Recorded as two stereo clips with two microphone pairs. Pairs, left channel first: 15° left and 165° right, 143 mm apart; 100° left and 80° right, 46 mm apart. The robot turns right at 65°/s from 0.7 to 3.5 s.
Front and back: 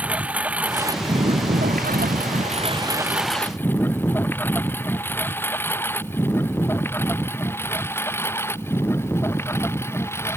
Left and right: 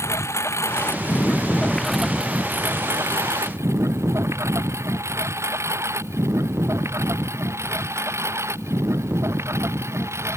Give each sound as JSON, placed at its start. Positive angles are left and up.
{"t": 0.0, "sound": "a lawn mower", "azimuth_deg": 110}